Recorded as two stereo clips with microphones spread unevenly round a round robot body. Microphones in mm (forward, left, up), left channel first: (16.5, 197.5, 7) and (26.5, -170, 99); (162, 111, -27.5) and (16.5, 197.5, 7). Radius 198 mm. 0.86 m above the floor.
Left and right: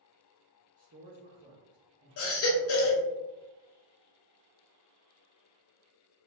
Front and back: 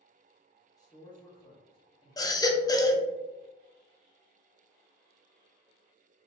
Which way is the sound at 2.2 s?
45° left.